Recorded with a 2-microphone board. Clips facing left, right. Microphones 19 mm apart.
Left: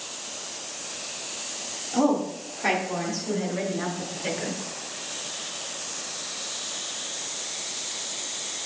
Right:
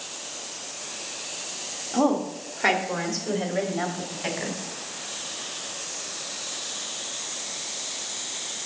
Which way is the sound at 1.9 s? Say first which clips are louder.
Even; 10° right (ahead or behind).